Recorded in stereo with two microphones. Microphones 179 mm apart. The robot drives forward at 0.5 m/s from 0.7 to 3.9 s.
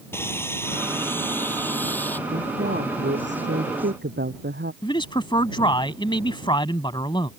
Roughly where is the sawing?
Centre.